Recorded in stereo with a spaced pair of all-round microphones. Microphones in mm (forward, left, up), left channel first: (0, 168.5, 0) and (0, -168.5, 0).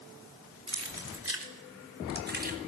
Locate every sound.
0.7 s keys jangling: 50° right (ahead or behind), 3 m; by 2.6 s 25° right (ahead or behind), 3 m